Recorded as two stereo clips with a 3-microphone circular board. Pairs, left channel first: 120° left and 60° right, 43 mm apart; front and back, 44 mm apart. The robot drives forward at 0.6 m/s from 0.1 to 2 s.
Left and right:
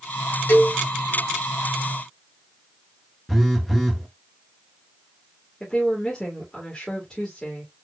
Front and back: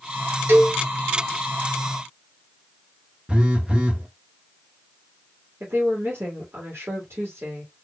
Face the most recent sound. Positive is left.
turn(degrees=-170)